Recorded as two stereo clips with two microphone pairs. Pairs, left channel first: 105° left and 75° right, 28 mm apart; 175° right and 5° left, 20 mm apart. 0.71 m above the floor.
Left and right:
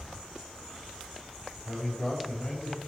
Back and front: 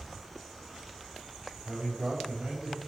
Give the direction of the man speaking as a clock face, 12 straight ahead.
10 o'clock.